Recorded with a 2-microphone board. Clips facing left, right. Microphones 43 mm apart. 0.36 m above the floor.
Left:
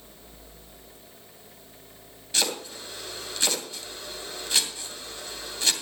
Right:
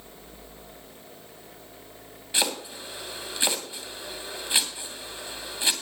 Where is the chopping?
20° right (ahead or behind), 2.5 m.